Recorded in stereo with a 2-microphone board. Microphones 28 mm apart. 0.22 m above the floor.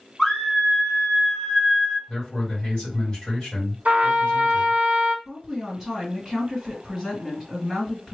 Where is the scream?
15° left (ahead or behind), 1.2 m.